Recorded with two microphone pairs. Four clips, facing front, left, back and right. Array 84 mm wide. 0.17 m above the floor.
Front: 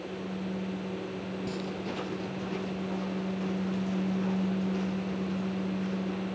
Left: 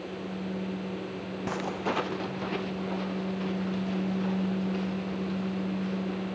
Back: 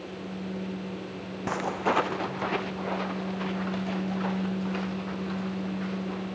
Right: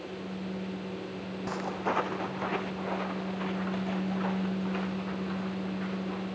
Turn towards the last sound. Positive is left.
turn(degrees=-140)